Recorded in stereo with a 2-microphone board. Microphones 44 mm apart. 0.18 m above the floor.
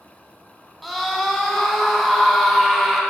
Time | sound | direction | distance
0.8 | a scream | centre (ahead or behind) | 1.3 m